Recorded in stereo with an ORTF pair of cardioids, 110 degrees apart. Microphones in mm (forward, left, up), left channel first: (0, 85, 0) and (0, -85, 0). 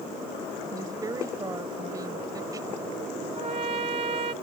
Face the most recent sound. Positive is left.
turn(degrees=-40)